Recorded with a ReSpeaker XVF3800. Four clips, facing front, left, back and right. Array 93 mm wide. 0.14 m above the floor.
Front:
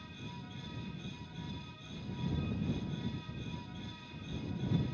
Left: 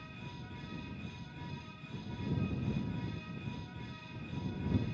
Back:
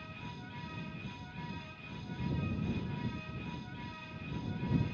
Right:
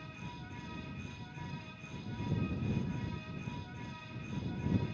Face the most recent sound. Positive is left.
No sound to turn to.